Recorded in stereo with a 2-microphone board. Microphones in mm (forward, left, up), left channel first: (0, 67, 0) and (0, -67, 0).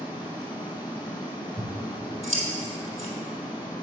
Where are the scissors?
50° right (ahead or behind), 3 m.